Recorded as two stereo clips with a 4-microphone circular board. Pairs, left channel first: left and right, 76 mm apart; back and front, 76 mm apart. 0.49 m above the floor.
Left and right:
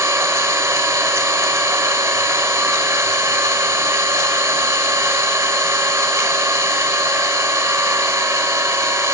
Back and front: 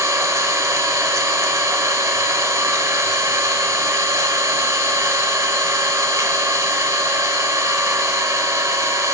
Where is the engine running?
45° right, 0.7 m.